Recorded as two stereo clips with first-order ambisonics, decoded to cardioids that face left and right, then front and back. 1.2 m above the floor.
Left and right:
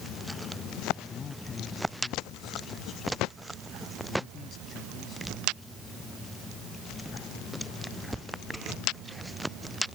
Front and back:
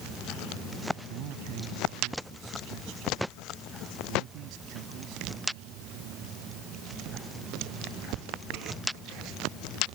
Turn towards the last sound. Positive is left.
turn(degrees=155)